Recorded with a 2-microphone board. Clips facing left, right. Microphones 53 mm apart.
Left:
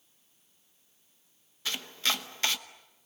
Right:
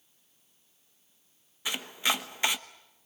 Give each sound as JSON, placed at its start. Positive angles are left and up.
{"t": 1.6, "sound": "chopping", "side_deg": -15, "distance_m": 1.0}